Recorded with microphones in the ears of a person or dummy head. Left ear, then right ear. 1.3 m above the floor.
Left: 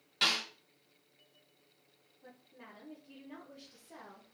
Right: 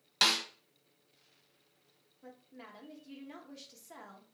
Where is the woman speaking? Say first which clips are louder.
Right 3 dB; 75° right (ahead or behind), 1.0 m.